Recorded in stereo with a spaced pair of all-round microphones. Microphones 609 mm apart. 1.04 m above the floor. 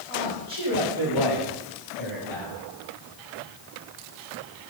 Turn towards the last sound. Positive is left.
turn(degrees=35)  # may be behind; listen again after turning